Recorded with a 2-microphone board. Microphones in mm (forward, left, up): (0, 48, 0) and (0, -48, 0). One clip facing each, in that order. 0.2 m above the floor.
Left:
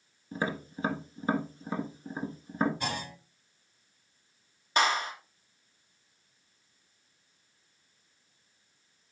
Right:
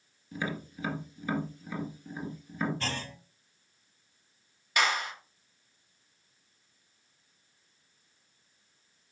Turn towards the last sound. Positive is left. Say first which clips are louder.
# left 2 dB
turn(degrees=30)  # may be behind; listen again after turning